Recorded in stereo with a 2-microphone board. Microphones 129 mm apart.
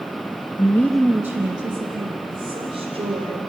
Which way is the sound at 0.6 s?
35° left (ahead or behind).